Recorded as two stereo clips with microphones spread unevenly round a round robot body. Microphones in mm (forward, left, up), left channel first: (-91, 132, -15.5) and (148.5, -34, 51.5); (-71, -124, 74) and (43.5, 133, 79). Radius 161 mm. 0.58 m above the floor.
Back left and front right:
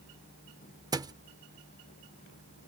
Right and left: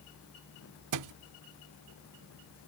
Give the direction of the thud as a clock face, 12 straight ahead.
10 o'clock.